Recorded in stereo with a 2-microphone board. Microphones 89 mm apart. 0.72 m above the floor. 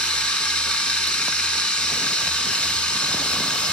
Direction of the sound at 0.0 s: 15° left (ahead or behind).